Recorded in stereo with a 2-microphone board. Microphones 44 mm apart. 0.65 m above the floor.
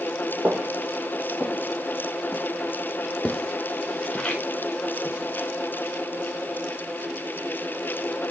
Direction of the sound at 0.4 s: 35° right (ahead or behind).